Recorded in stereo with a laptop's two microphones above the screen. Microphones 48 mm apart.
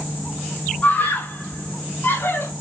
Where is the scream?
35° left (ahead or behind), 4 m; by 2.5 s 55° left (ahead or behind), 2.5 m.